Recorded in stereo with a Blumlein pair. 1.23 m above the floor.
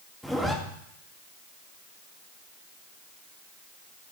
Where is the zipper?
Straight ahead, 1.8 m.